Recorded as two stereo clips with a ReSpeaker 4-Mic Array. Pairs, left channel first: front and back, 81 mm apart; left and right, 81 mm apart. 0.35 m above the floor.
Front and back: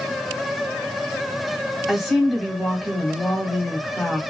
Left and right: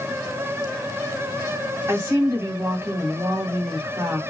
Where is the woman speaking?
95° right, 1.1 m.